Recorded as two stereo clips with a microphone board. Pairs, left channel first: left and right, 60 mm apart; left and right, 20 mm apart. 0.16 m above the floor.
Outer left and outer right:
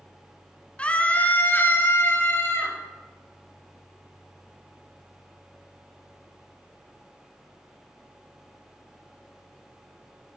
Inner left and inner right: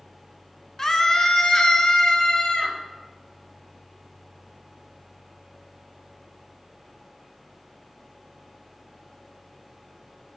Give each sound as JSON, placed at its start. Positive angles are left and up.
{"t": 0.8, "sound": "a scream", "side_deg": 20, "distance_m": 1.4}